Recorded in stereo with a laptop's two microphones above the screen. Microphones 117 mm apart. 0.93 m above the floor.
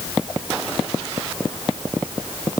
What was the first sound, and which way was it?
Only background noise.